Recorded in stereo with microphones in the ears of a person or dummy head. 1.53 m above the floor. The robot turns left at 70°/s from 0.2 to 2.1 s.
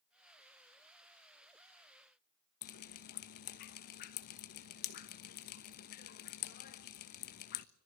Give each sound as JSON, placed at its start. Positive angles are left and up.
{"t": 2.6, "sound": "dripping", "side_deg": 45, "distance_m": 1.1}